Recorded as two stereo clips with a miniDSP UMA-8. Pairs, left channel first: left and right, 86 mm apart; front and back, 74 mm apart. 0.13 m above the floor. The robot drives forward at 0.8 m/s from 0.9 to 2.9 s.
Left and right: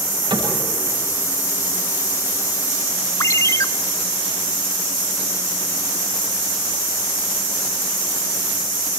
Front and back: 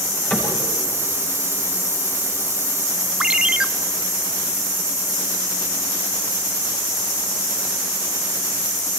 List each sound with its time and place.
0.3 s a cupboard door: 65° right, 8.5 m
3.2 s a ringtone: 105° left, 0.6 m